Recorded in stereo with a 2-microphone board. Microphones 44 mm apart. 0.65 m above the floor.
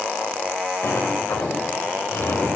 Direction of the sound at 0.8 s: 65° left (ahead or behind).